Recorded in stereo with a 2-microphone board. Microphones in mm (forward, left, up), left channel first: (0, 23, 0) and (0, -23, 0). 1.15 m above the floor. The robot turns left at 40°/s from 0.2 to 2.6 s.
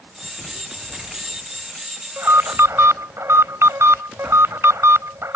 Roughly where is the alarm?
Right.